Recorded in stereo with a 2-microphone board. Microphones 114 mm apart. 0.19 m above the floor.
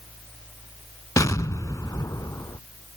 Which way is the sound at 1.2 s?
30° left (ahead or behind).